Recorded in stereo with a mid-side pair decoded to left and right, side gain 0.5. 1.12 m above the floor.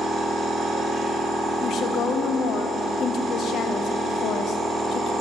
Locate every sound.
0.0 s a machine running: 45° right, 1.5 m
1.6 s a woman speaking: 60° left, 0.6 m